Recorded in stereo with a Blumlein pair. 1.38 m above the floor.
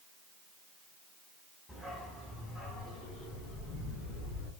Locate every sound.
1.7 s a dog barking: 10° left, 4.5 m; by 4.5 s 40° left, 6 m